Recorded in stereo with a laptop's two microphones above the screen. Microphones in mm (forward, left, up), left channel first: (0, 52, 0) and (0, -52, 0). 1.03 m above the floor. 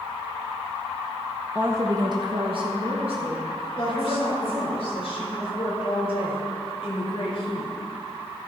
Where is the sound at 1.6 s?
10° right (ahead or behind), 0.8 m; by 4.8 s 60° right (ahead or behind), 3 m.